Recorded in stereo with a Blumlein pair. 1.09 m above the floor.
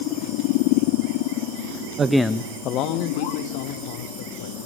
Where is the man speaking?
20° right, 0.6 m; by 4.6 s 55° left, 3.5 m.